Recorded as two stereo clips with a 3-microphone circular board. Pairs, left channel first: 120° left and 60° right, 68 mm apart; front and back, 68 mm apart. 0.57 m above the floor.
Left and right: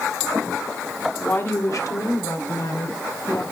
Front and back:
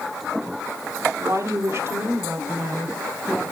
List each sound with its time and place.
1.2 s a woman speaking: 170° left, 1.3 m; by 3.4 s 115° left, 3 m